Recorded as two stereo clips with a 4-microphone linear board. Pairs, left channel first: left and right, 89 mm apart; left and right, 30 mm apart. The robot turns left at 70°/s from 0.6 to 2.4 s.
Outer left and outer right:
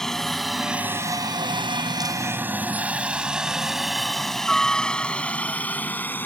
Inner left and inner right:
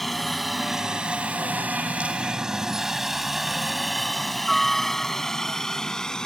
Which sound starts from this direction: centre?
A helicopter, at 0.0 s.